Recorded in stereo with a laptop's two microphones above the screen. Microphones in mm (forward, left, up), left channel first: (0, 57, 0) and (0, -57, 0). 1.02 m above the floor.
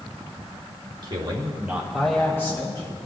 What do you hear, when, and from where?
1.0 s a man speaking: 45° right (ahead or behind), 1.4 m; by 2.9 s 35° left (ahead or behind), 1.5 m